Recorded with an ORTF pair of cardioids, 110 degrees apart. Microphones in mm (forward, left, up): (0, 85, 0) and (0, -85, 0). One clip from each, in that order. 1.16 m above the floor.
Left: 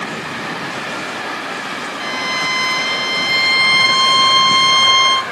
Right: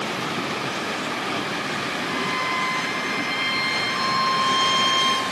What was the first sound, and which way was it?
A violin, 65° left.